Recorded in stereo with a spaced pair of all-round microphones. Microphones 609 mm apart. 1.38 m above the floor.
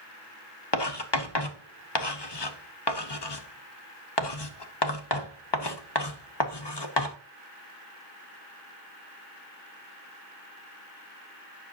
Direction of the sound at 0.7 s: 45° left (ahead or behind).